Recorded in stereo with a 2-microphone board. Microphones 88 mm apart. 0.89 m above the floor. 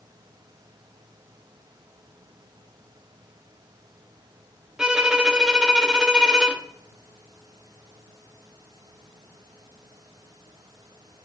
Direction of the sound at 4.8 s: 10° right (ahead or behind).